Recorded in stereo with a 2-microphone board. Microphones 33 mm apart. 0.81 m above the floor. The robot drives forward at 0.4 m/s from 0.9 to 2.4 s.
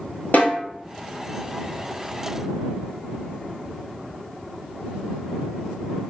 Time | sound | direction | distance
0.3 | a snare drum | 70° left (ahead or behind) | 1.3 m